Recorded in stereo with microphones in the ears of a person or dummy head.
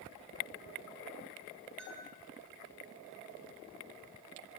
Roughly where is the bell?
Centre.